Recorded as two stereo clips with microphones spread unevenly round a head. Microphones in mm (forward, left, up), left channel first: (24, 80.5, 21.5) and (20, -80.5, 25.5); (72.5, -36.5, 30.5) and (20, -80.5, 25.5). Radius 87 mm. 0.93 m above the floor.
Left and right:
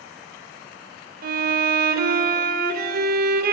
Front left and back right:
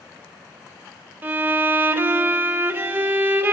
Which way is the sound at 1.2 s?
85° right.